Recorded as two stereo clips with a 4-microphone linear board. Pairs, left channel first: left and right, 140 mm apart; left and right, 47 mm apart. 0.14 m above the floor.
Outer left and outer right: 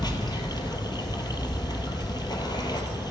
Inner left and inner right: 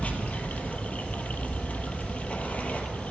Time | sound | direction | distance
0.0 | running water | 30° left (ahead or behind) | 0.8 m